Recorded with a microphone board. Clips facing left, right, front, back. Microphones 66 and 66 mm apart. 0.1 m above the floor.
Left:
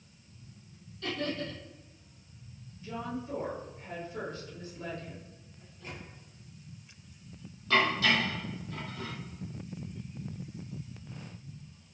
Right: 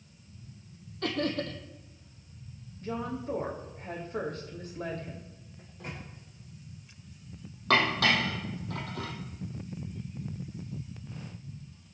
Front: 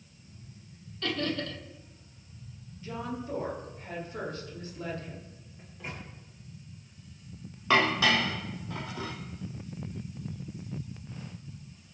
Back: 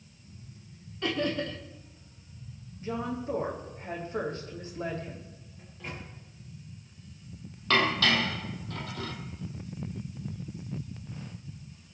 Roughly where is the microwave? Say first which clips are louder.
Right 3 dB, even; right.